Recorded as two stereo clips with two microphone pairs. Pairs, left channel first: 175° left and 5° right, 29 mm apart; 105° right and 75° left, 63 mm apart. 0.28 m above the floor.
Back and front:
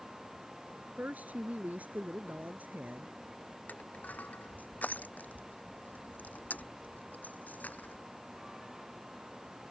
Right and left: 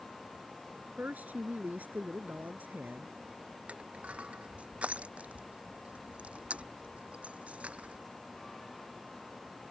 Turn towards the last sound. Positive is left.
turn(degrees=145)